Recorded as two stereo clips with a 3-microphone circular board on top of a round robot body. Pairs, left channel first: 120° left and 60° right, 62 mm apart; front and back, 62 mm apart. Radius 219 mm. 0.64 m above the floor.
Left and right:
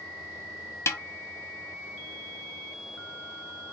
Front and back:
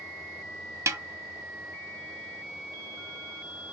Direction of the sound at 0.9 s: 150° left.